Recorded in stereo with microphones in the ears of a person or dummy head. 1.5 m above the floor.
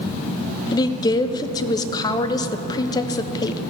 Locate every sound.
0.7 s a woman speaking: 20° left (ahead or behind), 0.7 m